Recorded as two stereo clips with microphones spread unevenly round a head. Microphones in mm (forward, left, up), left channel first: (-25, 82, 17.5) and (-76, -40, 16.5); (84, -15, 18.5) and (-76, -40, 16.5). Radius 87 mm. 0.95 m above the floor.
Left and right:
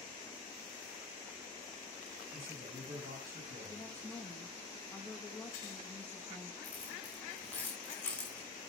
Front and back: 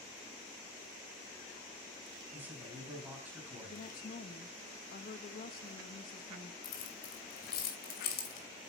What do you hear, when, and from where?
2.3 s a man speaking: 90° right, 4.5 m
3.7 s a woman speaking: 10° right, 1.1 m
6.6 s keys jangling: 15° right, 2.5 m